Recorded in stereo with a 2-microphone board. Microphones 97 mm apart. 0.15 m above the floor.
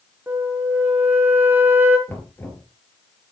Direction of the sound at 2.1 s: 25° left (ahead or behind).